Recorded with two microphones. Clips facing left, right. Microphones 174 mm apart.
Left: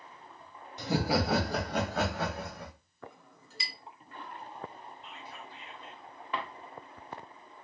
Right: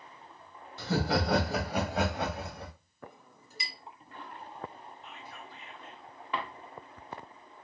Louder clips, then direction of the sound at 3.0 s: Even; 20° right (ahead or behind).